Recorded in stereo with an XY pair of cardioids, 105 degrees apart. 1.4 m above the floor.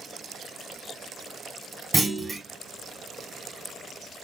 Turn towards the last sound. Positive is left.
turn(degrees=-15)